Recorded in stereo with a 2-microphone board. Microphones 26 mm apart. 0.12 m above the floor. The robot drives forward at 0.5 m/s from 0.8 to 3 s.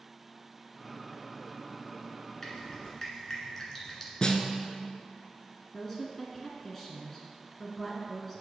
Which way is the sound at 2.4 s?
20° left (ahead or behind).